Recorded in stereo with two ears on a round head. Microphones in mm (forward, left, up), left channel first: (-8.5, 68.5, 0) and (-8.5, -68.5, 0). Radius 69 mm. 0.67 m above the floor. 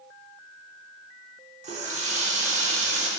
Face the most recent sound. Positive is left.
turn(degrees=-50)  # may be behind; listen again after turning